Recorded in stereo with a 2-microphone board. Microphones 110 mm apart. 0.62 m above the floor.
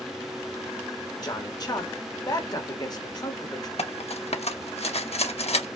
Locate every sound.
1.2 s a man speaking: 35° left (ahead or behind), 1.4 m
3.8 s cutlery clinking: 65° left (ahead or behind), 0.7 m